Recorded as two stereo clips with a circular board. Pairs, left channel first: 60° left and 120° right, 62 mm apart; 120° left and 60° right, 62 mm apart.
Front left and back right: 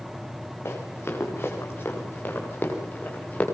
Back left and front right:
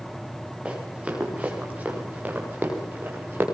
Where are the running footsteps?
10° left, 9.5 m; by 3.5 s 5° right, 9 m.